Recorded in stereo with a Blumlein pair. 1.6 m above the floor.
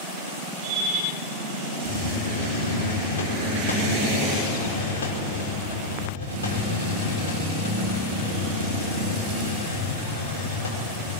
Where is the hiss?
65° left, 5.5 m.